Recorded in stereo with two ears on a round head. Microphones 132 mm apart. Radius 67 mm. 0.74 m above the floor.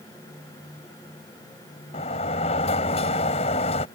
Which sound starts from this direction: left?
A sliding door, at 1.9 s.